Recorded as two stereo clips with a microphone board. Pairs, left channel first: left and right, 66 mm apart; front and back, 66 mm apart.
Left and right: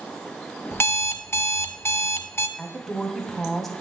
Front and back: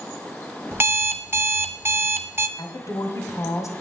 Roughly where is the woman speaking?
Ahead.